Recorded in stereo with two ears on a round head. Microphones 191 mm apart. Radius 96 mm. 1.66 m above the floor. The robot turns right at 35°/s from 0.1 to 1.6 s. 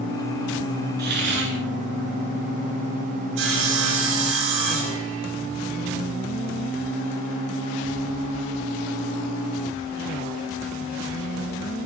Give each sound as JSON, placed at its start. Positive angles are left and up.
{"t": 1.0, "sound": "a hiss", "side_deg": -50, "distance_m": 9.5}
{"t": 3.4, "sound": "sawing", "side_deg": -70, "distance_m": 5.5}